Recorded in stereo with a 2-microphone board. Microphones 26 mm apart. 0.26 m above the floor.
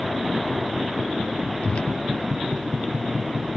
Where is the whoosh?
50° left (ahead or behind).